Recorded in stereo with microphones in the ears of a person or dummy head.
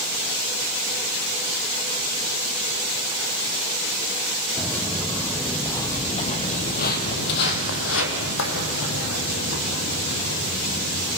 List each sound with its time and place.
4.6 s footsteps: centre (ahead or behind), 3.5 m; by 11.2 s 60° left (ahead or behind), 6 m